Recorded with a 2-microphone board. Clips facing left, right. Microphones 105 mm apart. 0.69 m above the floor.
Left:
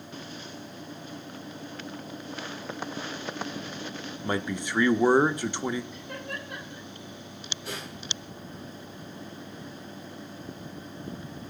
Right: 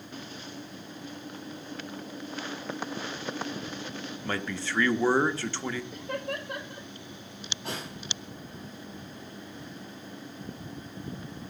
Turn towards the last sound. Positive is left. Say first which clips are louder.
# right 2 dB
turn(degrees=-65)  # may be behind; listen again after turning